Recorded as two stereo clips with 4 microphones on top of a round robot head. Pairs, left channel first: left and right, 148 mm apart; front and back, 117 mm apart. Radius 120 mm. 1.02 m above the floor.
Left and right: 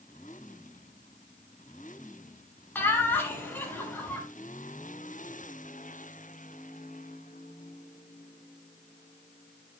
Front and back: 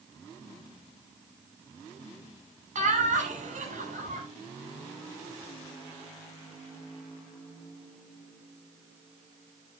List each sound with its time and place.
2.8 s laughter: 165° left, 6 m